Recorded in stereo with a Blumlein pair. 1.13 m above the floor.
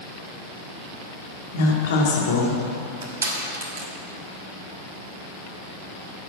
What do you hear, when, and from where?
1.5 s a woman speaking: 55° left, 2 m
3.0 s crushing: 70° right, 2.5 m